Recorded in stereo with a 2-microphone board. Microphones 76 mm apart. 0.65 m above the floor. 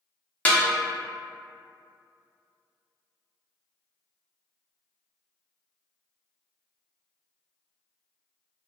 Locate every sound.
0.5 s a snare drum: 20° left (ahead or behind), 0.5 m